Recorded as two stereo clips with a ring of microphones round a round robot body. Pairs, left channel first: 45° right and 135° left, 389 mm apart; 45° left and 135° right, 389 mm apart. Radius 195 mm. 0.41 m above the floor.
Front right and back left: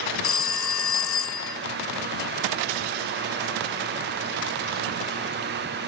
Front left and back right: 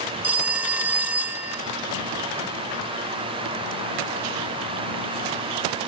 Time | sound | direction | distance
0.2 | a phone ringing | 50° right | 0.8 m